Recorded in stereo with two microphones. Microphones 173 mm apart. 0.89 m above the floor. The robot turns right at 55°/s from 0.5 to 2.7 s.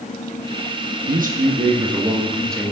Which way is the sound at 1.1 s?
75° right.